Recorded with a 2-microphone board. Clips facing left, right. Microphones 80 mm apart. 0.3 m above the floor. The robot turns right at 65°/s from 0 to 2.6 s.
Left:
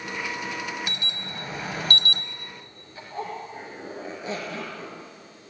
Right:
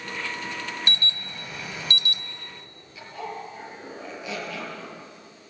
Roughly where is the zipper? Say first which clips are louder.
Left 2 dB; left.